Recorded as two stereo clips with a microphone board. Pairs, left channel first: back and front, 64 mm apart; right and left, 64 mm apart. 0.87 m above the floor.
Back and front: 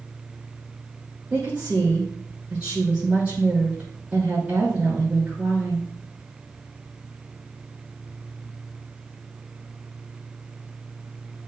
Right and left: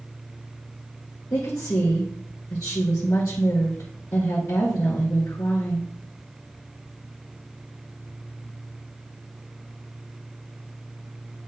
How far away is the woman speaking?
About 3 m.